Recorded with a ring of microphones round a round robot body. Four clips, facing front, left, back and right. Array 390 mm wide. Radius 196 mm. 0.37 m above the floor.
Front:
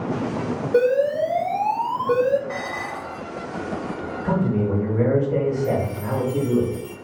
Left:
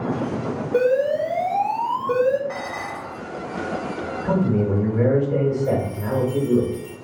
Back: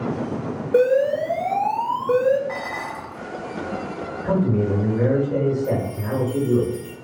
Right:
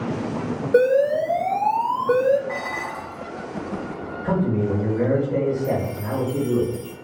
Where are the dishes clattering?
140° right, 0.9 m.